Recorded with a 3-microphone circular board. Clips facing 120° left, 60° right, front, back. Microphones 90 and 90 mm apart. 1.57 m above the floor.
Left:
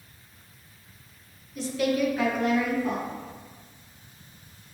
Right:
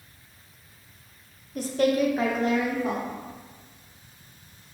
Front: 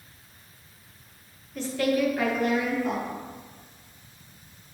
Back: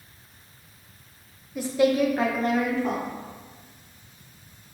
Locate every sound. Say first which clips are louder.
1.6 s a woman speaking: right 3 dB, back 4 dB; 100° right, 0.5 m; by 3.0 s 130° right, 1.2 m